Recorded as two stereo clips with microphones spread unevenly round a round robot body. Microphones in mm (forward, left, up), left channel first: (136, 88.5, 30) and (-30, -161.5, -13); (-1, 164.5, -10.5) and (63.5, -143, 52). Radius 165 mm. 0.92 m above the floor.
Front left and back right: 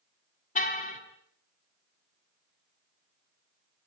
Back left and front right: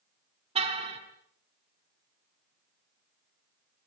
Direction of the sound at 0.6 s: 10° right.